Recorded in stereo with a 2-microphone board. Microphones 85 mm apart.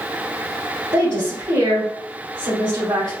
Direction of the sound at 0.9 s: 75° right (ahead or behind).